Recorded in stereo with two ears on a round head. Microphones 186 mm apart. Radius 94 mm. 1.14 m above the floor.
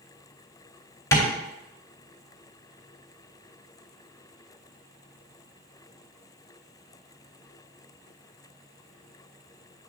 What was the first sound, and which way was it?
Tapping, 15° left (ahead or behind).